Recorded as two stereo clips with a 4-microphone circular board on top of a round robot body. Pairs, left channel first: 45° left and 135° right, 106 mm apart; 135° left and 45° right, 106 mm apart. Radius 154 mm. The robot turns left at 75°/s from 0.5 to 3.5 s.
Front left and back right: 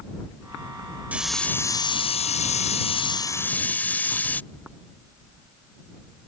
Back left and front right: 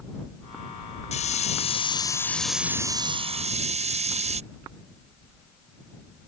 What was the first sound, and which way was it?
A hiss, 150° left.